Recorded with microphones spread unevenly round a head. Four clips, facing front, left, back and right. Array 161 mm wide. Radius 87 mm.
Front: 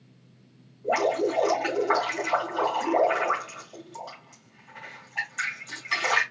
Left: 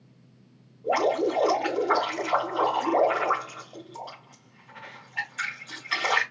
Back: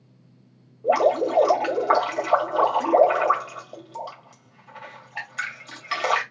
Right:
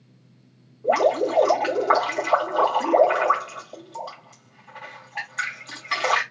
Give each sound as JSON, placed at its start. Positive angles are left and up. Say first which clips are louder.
{"t": 0.8, "sound": "dripping", "louder": "right 4 dB, back 5 dB", "azimuth_deg": -155, "distance_m": 2.5}